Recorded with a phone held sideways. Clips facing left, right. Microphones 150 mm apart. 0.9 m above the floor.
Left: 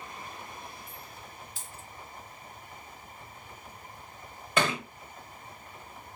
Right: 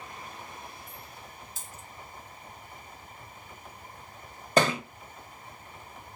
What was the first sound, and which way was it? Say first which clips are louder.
A dropped coin: even; 45° right (ahead or behind).